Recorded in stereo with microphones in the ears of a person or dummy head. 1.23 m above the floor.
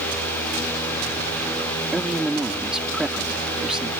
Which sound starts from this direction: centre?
A man speaking, at 1.9 s.